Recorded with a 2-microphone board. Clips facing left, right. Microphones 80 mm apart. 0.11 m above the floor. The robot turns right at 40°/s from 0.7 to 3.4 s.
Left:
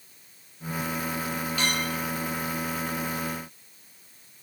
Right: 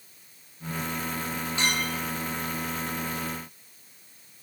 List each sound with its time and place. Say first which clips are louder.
1.6 s a clink: right 1 dB; 30° right (ahead or behind), 2.5 m; by 2.0 s 45° right (ahead or behind), 2.5 m